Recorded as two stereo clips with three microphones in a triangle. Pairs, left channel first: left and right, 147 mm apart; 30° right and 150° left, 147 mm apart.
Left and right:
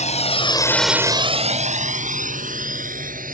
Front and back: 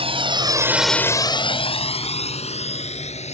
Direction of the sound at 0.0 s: 110° left.